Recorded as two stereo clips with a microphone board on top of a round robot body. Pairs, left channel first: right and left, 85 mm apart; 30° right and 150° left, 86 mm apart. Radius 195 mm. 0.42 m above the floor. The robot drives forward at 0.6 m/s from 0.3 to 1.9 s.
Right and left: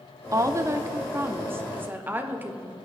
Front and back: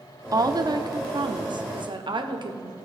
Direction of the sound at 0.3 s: 125° left.